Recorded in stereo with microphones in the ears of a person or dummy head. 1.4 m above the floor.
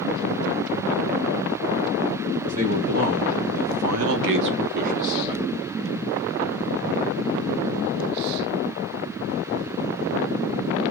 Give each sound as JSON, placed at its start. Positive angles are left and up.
{"t": 2.4, "sound": "a man speaking", "side_deg": -40, "distance_m": 1.6}